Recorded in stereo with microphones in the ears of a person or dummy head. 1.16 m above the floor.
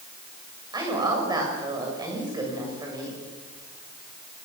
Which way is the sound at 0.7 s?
25° right (ahead or behind).